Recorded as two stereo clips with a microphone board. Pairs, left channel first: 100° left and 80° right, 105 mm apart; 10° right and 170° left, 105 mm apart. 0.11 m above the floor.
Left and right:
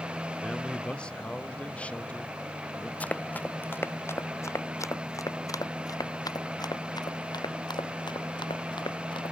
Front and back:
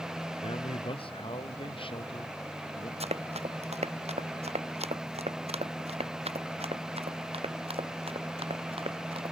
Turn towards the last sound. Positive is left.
turn(degrees=140)